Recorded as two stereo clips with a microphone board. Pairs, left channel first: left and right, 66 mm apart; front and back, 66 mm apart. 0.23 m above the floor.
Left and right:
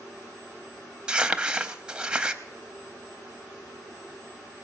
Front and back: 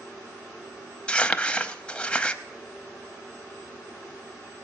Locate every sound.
1.1 s crumpling: 40° right, 0.6 m